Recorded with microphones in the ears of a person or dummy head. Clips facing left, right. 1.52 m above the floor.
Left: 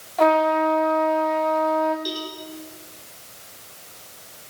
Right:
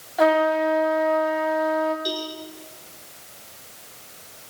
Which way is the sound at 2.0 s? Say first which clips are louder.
Right 1 dB; centre (ahead or behind).